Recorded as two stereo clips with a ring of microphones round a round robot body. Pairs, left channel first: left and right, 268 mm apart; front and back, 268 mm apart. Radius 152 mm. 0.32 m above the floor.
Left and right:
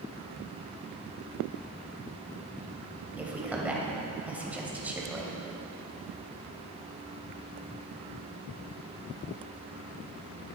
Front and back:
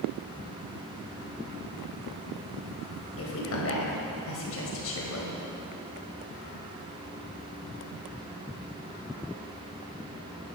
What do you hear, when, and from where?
3.2 s a woman speaking: 5° right, 2.0 m